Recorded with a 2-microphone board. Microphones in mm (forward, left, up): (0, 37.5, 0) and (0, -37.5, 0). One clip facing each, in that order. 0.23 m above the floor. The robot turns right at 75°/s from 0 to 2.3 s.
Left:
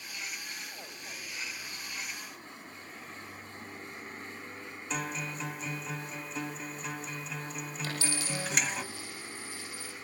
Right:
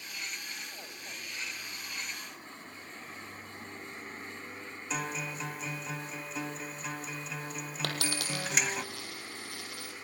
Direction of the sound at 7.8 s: 70° right (ahead or behind).